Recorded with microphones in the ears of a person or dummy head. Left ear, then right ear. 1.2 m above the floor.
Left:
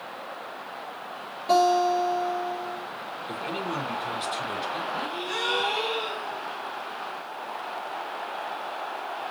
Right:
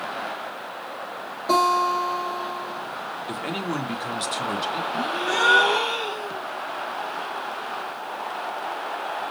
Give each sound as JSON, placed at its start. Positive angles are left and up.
{"t": 1.5, "sound": "a guitar", "side_deg": 0, "distance_m": 4.0}
{"t": 3.3, "sound": "a man speaking", "side_deg": -15, "distance_m": 1.4}
{"t": 4.9, "sound": "a gasp", "side_deg": -10, "distance_m": 4.0}